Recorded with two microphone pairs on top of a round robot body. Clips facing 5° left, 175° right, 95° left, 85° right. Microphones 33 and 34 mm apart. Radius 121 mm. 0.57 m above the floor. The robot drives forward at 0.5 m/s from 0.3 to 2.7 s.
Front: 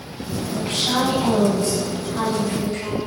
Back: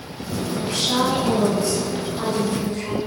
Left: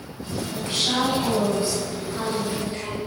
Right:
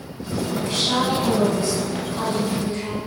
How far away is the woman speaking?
About 5.5 m.